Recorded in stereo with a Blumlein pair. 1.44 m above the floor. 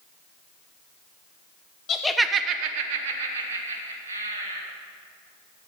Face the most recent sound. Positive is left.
turn(degrees=-75)